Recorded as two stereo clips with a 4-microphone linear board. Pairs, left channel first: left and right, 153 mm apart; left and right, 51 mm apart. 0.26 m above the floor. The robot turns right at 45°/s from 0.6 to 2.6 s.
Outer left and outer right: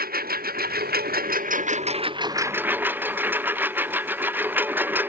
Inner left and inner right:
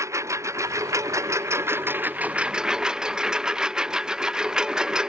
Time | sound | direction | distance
0.0 | a lawn mower | 105° right | ?